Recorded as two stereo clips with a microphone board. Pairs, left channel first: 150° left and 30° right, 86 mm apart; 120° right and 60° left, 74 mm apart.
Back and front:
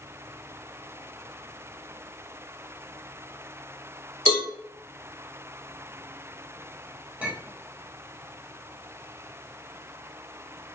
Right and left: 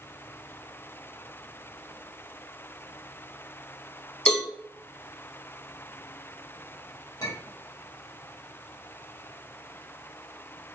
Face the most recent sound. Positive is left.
turn(degrees=-100)